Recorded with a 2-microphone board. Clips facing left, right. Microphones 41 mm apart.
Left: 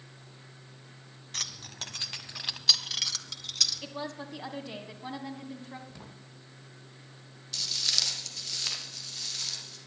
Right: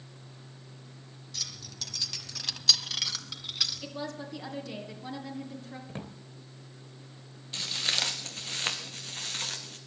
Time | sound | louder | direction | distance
1.3 | keys jangling | left 3 dB | 55° left (ahead or behind) | 1.5 m
3.8 | a woman speaking | even | 20° left (ahead or behind) | 1.6 m
5.9 | a drawer | right 7 dB | 45° right (ahead or behind) | 2 m
7.5 | footsteps | right 2 dB | 30° right (ahead or behind) | 2.5 m